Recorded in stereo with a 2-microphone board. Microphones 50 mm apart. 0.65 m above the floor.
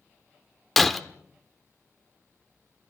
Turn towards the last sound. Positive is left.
turn(degrees=0)  # may be behind; listen again after turning